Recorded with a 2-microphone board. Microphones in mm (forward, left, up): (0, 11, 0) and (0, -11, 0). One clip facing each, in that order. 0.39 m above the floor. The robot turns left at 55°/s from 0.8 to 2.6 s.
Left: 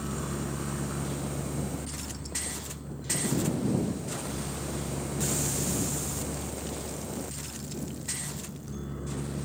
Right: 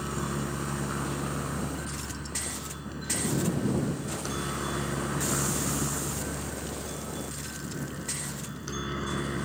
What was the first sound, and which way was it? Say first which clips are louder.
A helicopter: right 2 dB; 25° right (ahead or behind).